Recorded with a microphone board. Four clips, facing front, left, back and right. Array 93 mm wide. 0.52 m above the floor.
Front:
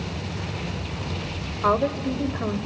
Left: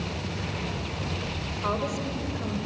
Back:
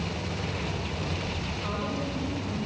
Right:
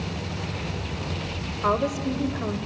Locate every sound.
1.6 s a woman speaking: 25° right, 2.5 m